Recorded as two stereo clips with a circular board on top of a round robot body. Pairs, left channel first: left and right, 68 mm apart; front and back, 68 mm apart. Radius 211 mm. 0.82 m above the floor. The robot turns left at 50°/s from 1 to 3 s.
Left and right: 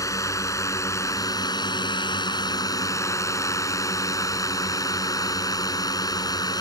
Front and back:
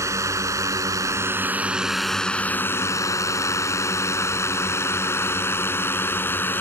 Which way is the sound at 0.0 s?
135° left.